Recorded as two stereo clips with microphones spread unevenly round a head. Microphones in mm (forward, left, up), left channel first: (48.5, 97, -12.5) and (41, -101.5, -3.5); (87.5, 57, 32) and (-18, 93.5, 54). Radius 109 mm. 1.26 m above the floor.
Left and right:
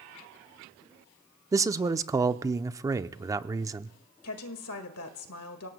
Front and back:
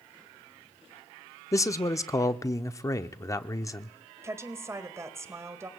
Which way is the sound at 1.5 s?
25° right.